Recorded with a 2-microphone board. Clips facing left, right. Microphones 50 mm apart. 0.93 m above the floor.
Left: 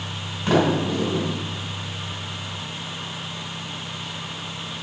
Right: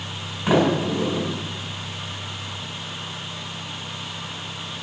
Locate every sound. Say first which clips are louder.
0.5 s a sliding door: right 1 dB; 10° right (ahead or behind), 4.5 m